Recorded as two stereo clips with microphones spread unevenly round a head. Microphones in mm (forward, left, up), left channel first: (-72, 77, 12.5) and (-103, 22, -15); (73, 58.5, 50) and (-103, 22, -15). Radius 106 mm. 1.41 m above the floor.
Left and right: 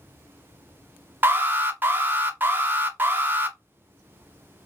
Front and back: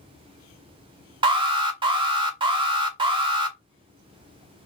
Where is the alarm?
135° right, 0.8 m.